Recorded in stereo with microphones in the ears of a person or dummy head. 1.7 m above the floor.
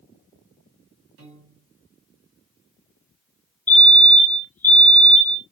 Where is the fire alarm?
15° left (ahead or behind), 0.6 m.